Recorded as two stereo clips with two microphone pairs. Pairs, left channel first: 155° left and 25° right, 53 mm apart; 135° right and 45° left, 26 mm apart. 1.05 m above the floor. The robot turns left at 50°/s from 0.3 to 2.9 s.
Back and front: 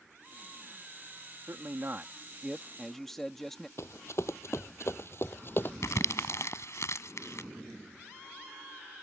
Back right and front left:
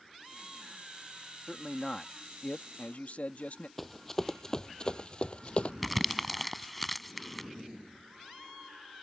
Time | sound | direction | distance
1.5 | a man speaking | 50° right | ?
3.8 | running footsteps | 140° left | ?
5.8 | crumpling | 135° left | ?